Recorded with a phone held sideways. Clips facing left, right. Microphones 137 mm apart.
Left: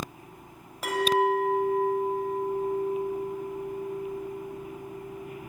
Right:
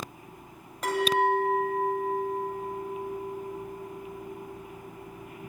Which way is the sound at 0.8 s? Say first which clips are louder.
Left 1 dB; 5° left (ahead or behind).